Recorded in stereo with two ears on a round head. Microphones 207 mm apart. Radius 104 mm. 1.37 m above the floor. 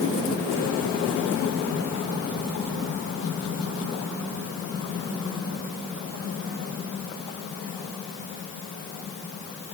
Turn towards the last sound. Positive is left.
No sound to turn to.